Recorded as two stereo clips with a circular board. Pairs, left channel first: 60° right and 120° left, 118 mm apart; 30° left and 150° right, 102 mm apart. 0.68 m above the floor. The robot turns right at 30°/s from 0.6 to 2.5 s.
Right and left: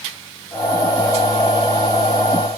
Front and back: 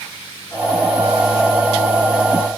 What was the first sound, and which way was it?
Only background noise.